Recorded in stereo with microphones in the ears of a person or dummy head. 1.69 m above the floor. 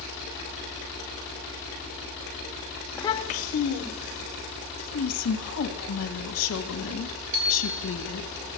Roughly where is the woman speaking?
Left.